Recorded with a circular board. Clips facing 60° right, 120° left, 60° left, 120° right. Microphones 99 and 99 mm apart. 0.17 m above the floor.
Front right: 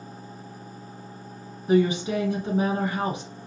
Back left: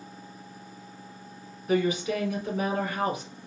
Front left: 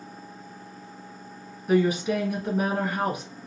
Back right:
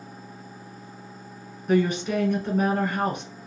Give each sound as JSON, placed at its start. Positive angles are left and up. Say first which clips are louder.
{"t": 1.7, "sound": "a woman speaking", "louder": "front right 4 dB, even", "azimuth_deg": -20, "distance_m": 1.2}